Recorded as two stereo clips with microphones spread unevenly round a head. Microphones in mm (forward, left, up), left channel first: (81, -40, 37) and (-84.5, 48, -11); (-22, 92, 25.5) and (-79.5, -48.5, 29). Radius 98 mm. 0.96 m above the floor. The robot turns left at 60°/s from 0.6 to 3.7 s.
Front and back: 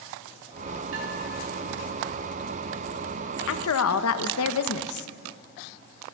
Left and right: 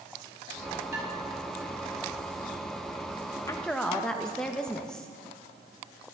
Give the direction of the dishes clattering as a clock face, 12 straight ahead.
6 o'clock.